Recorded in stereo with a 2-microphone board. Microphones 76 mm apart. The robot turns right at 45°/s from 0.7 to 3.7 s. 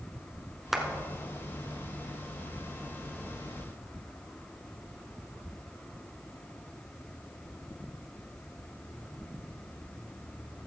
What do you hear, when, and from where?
0.7 s a clap: 5° right (ahead or behind), 1.6 m